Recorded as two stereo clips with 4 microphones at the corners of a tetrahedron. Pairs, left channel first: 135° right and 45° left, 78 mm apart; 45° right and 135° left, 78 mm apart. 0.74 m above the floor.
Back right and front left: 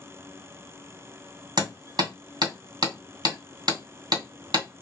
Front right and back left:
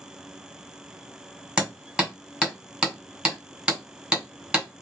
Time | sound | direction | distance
1.6 | hammering | 60° left | 1.8 m